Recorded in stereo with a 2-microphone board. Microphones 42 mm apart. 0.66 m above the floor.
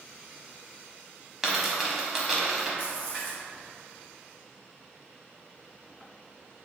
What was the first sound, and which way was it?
A dropped coin, 5° right (ahead or behind).